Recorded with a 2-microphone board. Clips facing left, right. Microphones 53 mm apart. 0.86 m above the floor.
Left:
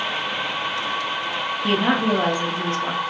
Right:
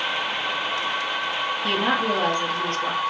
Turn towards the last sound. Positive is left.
turn(degrees=10)  # may be behind; listen again after turning